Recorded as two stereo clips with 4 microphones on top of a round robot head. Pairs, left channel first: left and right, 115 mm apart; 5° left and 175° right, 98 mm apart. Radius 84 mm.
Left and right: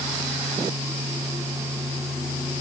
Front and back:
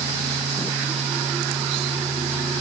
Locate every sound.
Only background noise.